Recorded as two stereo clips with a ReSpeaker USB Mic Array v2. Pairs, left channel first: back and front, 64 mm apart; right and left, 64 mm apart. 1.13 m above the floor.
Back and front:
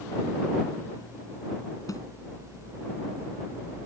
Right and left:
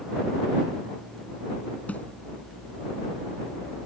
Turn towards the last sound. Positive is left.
turn(degrees=-155)